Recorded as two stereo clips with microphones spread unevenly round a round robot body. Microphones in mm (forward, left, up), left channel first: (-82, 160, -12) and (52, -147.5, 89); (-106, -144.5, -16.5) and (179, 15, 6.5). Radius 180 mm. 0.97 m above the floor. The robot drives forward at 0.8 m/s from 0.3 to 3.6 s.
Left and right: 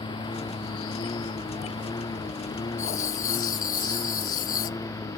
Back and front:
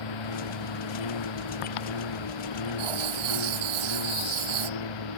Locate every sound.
0.0 s a lawn mower: 170° right; by 5.2 s 165° right
2.8 s writing: 45° left